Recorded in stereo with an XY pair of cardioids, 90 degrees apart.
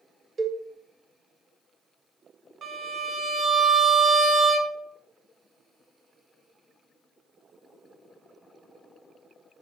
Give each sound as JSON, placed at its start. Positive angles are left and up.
{"t": 0.4, "sound": "a cowbell", "azimuth_deg": -40, "distance_m": 0.7}
{"t": 2.6, "sound": "a violin", "azimuth_deg": -55, "distance_m": 0.6}